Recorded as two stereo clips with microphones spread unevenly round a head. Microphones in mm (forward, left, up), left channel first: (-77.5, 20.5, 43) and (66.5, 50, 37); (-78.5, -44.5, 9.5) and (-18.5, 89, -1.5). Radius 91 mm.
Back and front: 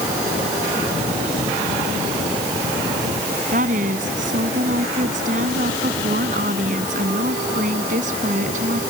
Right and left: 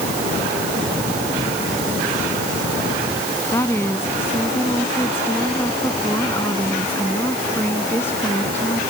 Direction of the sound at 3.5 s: 35° right.